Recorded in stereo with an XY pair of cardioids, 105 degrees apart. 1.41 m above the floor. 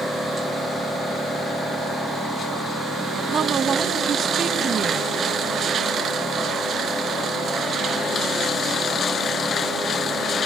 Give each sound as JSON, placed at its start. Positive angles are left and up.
{"t": 3.3, "sound": "a woman speaking", "azimuth_deg": -45, "distance_m": 1.3}